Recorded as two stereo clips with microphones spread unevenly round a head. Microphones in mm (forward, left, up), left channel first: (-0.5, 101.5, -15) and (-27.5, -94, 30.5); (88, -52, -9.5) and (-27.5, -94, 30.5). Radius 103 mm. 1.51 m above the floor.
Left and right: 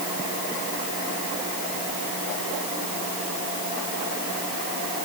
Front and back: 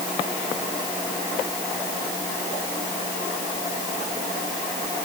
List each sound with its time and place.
Only background noise.